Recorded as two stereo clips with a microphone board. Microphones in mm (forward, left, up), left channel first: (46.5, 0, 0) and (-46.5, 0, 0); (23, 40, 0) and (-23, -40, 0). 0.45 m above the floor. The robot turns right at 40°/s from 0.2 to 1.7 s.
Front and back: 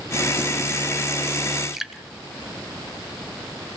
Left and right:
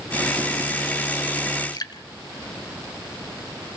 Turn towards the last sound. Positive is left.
turn(degrees=95)